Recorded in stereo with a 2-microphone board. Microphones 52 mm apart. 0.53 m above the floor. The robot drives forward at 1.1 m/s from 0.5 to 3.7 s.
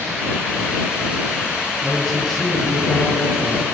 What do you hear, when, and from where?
1.8 s a man speaking: 5° left (ahead or behind), 10 m